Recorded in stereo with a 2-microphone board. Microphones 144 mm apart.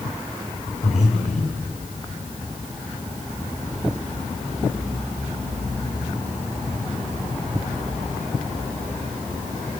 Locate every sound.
0.8 s breathing: 50° left (ahead or behind), 5 m